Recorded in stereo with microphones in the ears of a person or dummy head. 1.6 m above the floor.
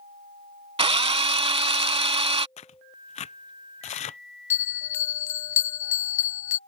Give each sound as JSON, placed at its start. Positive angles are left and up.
{"t": 0.8, "sound": "a drill", "side_deg": -25}
{"t": 2.6, "sound": "tearing paper", "side_deg": 40}
{"t": 4.5, "sound": "a bell", "side_deg": 15}